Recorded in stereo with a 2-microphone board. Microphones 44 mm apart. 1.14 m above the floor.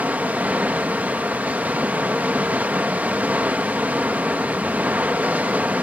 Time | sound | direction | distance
0.0 | running water | 40° right (ahead or behind) | 1.1 m